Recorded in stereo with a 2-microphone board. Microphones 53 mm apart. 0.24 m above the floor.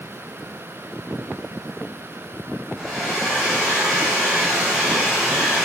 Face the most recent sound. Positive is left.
turn(degrees=-5)  # may be behind; listen again after turning